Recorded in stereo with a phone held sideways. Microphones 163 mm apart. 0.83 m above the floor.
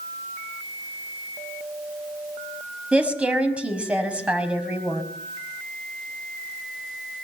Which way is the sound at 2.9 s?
5° right (ahead or behind).